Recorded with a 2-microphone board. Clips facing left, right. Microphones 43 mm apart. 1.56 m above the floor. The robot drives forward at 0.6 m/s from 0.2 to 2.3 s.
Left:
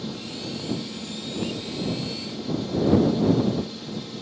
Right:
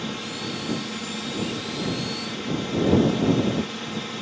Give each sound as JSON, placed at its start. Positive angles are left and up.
{"t": 0.0, "sound": "a drone", "side_deg": -60}